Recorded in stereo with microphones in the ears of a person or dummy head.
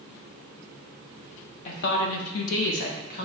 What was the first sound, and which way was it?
A woman speaking, 45° left (ahead or behind).